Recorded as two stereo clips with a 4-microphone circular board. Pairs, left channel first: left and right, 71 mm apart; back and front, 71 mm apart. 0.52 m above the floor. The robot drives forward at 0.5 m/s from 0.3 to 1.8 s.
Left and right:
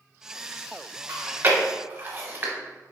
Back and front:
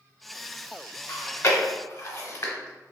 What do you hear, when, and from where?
1.1 s chewing: 130° right, 0.5 m; by 2.5 s 150° right, 0.8 m